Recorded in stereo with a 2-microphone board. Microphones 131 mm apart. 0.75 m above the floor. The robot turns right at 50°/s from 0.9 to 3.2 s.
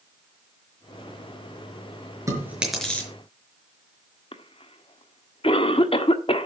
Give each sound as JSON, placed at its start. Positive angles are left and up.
{"t": 2.3, "sound": "chewing", "side_deg": -25, "distance_m": 5.0}
{"t": 4.3, "sound": "a cough", "side_deg": 45, "distance_m": 1.4}